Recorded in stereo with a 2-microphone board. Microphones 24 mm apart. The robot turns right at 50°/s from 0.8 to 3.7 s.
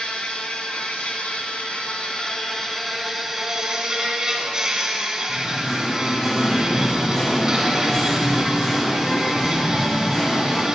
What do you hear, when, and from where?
0.0 s an insect: 65° left, 1.5 m; by 10.7 s 150° right, 1.5 m
5.3 s singing: 25° left (ahead or behind), 2 m